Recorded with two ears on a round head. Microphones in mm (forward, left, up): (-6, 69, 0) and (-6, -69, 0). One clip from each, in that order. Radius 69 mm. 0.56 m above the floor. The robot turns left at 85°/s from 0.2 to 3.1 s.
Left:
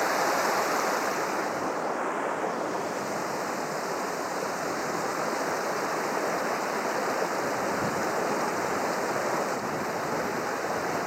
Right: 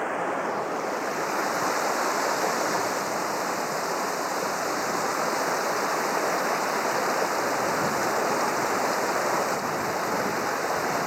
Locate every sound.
0.0 s running water: 85° left; by 11.1 s 160° right